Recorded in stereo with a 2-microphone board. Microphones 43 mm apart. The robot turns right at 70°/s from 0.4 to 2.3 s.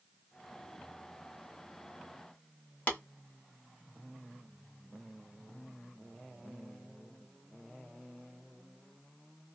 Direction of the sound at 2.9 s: 40° left (ahead or behind).